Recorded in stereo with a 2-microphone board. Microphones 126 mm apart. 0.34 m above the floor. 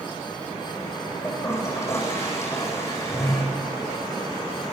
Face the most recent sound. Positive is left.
turn(degrees=20)  # may be behind; listen again after turning